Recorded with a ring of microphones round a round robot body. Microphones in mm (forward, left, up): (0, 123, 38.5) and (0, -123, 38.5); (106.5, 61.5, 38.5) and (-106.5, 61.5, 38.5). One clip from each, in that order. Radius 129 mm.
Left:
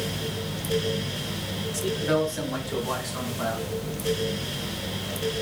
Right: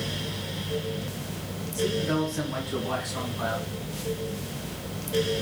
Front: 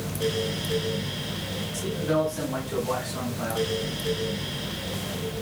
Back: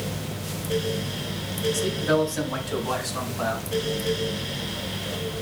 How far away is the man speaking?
About 2.5 m.